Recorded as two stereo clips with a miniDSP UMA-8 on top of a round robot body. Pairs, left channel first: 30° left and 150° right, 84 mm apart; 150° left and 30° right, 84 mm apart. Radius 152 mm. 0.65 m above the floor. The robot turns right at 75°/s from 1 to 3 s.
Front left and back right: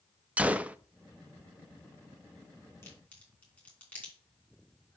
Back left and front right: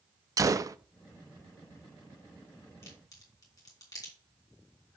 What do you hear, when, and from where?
0.4 s a gunshot: 80° right, 0.5 m
2.8 s a crack: 90° left, 3 m; by 4.1 s 100° left, 3 m